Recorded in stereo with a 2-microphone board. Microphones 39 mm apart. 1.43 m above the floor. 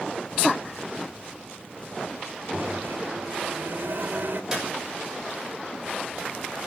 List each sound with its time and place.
2.5 s a microwave: 55° right (ahead or behind), 1.2 m
4.5 s a clap: 10° right (ahead or behind), 5.5 m